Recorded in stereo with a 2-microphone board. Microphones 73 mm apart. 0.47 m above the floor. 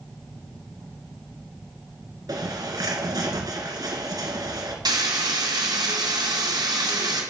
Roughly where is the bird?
Right.